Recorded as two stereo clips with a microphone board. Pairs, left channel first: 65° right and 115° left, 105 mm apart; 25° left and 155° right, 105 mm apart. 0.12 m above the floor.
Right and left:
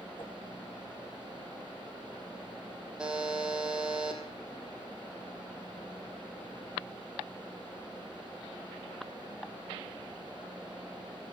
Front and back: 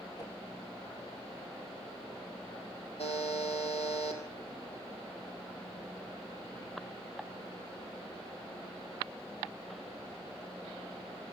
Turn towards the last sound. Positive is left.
turn(degrees=30)